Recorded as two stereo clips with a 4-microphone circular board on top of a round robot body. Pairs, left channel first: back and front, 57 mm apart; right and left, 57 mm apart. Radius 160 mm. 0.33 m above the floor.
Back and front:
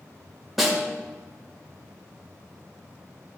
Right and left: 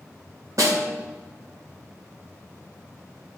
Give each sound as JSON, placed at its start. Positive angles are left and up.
{"t": 0.6, "sound": "a snare drum", "azimuth_deg": 85, "distance_m": 2.5}